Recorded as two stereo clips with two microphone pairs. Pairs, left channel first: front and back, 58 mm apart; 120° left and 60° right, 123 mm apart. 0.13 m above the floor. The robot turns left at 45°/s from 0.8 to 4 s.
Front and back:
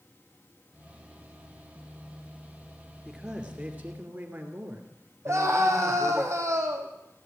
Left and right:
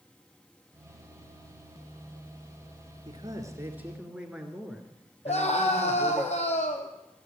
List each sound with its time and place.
3.0 s a man speaking: 95° right, 2.5 m; by 6.2 s 140° right, 2.5 m
5.2 s a scream: 145° left, 4.5 m